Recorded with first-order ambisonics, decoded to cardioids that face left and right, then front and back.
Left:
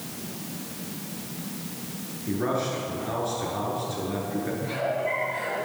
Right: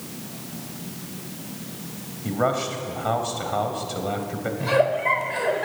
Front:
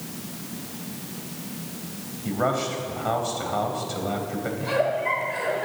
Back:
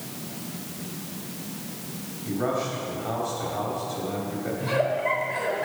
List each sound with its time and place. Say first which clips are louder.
2.2 s a man speaking: right 4 dB, front 2 dB; 60° right, 2.5 m
4.6 s a giggle: right 9 dB, front 1 dB; 85° right, 1.7 m